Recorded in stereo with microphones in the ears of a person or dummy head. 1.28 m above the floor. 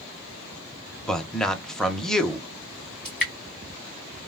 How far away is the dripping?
About 1.4 m.